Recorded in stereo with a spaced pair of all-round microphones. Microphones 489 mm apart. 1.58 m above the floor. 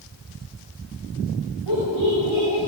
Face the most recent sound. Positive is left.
turn(degrees=-75)  # may be behind; listen again after turning